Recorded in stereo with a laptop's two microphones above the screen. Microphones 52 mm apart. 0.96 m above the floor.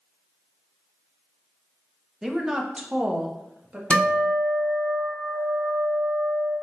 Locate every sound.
2.2 s a woman speaking: 5° right (ahead or behind), 0.7 m; by 3.8 s 20° right (ahead or behind), 1.3 m
3.9 s a guitar: 20° left (ahead or behind), 2.5 m